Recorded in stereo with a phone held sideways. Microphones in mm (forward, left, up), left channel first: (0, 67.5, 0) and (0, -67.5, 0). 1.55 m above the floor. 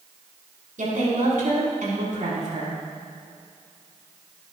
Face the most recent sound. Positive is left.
turn(degrees=-80)